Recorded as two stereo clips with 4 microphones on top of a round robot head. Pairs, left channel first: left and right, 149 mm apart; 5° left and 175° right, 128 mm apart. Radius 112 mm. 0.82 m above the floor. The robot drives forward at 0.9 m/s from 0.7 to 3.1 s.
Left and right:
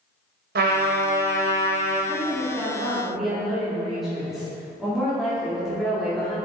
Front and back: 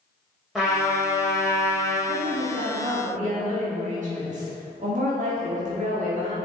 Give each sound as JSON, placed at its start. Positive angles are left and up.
{"t": 0.6, "sound": "a trumpet", "azimuth_deg": -85, "distance_m": 1.9}
{"t": 2.1, "sound": "a woman speaking", "azimuth_deg": 180, "distance_m": 1.3}